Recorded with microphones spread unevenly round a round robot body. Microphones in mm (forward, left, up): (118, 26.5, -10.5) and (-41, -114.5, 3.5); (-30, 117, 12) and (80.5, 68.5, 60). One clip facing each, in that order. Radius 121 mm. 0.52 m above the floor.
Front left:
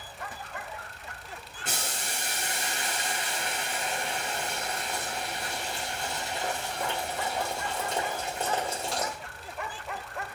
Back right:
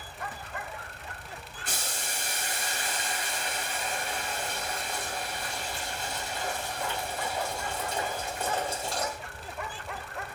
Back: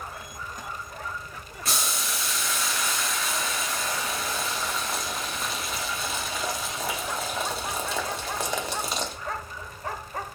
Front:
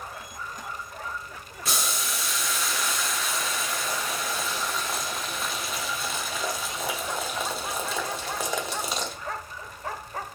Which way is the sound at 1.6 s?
95° left.